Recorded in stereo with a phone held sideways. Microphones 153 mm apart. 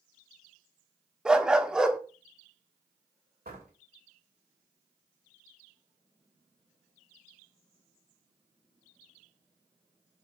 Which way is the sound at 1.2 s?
5° right (ahead or behind).